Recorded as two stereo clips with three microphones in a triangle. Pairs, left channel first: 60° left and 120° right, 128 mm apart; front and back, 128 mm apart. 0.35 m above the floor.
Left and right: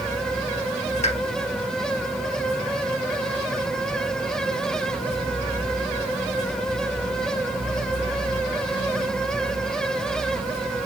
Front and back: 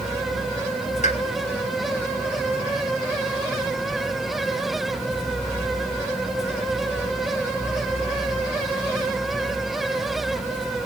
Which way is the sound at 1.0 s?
30° left.